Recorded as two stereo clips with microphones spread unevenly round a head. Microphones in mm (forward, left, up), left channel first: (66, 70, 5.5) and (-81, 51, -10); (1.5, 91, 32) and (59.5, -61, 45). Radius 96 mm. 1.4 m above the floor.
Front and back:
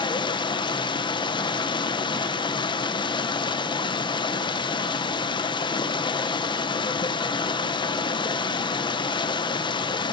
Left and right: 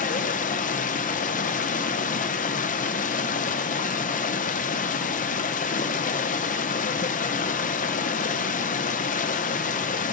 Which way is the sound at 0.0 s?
65° left.